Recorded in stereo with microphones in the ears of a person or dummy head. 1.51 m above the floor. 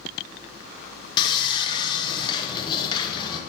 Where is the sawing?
25° left (ahead or behind), 1.1 m.